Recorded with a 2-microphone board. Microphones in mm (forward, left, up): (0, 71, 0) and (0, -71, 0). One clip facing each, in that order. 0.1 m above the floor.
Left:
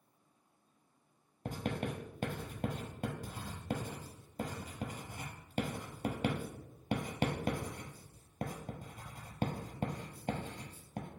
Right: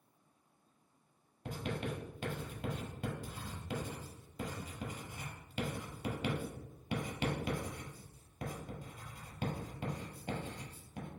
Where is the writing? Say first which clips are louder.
Left 2 dB; 45° left (ahead or behind), 0.9 m.